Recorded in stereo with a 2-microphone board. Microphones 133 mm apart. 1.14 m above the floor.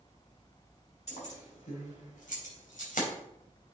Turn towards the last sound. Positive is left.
turn(degrees=85)